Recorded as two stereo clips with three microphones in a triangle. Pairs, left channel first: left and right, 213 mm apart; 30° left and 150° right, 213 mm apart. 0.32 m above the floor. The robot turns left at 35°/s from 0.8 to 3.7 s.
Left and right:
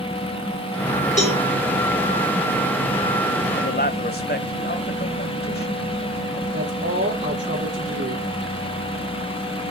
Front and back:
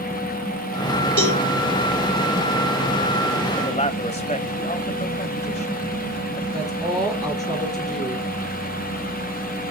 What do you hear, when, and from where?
1.2 s a cowbell: 35° left, 5.5 m; by 1.4 s 25° left, 5.5 m
3.6 s a man speaking: 80° left, 1.4 m; by 6.4 s 75° left, 1.4 m
6.5 s a woman speaking: 60° right, 7 m